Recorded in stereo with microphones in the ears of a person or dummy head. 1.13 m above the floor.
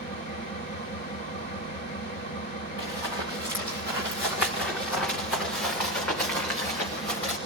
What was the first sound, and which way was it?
An engine running, 60° right (ahead or behind).